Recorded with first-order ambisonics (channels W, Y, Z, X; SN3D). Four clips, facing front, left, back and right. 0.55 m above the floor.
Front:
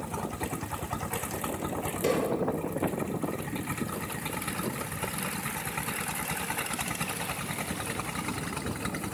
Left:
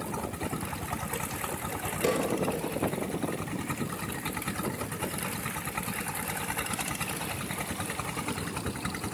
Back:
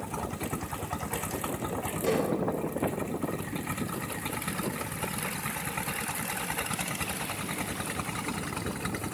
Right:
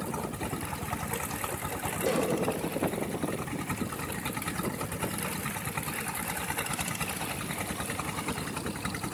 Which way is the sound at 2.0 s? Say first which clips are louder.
Left 1 dB, even; 70° left.